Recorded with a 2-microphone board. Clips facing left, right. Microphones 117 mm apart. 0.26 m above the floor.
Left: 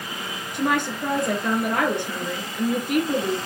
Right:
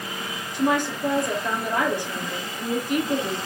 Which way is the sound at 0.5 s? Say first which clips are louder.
Right 1 dB; 70° left (ahead or behind).